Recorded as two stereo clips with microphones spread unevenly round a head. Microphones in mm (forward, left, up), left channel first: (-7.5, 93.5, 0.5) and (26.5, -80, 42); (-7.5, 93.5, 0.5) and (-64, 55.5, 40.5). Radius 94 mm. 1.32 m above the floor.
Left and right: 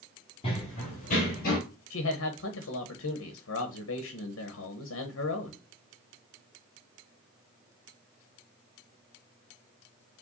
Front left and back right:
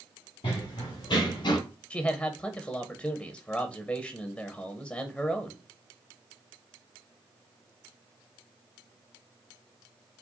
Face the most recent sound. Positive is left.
turn(degrees=105)